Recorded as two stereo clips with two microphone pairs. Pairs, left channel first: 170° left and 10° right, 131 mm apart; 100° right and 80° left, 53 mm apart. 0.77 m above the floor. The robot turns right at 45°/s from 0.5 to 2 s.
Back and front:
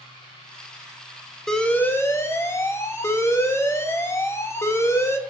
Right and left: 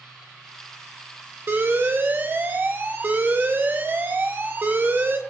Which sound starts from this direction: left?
An alarm, at 1.5 s.